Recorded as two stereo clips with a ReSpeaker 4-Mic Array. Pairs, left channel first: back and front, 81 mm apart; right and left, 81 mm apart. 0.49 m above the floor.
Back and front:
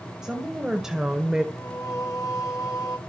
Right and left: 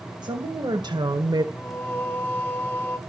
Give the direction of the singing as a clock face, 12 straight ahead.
5 o'clock.